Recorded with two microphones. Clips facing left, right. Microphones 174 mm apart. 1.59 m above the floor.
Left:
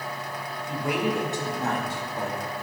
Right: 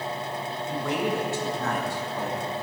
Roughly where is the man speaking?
Centre.